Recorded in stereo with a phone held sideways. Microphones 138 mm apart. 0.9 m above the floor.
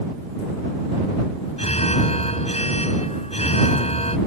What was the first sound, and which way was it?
An alarm, 50° left (ahead or behind).